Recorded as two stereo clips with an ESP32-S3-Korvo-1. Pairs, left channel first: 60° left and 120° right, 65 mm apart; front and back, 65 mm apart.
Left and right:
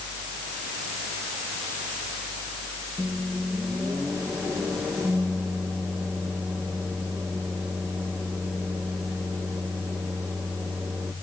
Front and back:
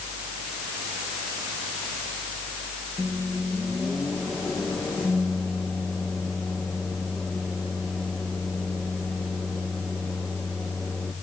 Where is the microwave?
90° right, 4.5 m.